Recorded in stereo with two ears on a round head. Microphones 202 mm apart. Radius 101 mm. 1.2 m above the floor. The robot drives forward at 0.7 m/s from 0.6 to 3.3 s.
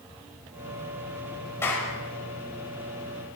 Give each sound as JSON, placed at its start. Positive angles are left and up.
{"t": 1.6, "sound": "a clap", "side_deg": 10, "distance_m": 5.0}